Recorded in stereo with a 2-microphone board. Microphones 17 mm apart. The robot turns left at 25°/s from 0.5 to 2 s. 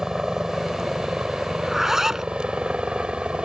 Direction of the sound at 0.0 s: 40° right.